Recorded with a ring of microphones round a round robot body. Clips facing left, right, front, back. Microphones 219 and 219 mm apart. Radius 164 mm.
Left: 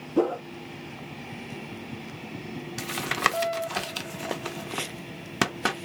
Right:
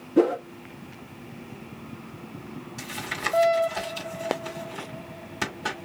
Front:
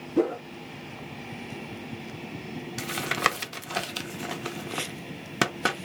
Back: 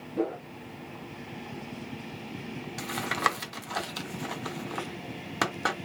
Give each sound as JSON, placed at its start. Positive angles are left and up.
{"t": 0.2, "sound": "a whoosh", "azimuth_deg": -20, "distance_m": 0.6}
{"t": 2.8, "sound": "tapping", "azimuth_deg": 65, "distance_m": 0.8}